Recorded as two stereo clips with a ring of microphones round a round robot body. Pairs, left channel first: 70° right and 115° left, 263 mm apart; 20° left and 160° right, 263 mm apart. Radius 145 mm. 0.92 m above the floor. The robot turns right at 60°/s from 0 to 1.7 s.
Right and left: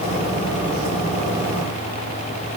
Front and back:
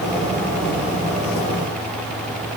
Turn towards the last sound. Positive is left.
No sound to turn to.